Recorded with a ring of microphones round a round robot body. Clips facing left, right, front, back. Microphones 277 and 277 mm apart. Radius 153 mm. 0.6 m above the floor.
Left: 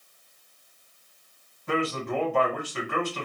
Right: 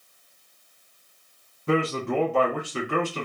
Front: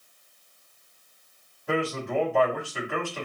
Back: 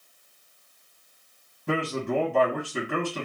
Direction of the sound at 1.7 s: 145° right.